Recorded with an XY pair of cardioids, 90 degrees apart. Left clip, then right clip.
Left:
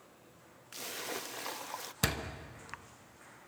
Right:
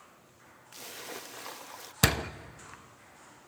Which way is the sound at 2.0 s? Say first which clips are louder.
Right 7 dB; 50° right.